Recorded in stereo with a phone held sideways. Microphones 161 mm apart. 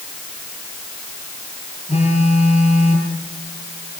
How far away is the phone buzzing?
About 8 m.